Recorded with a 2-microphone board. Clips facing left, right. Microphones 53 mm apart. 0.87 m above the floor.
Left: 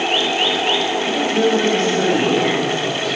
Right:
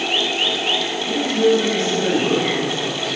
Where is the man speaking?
50° left (ahead or behind), 3.5 m.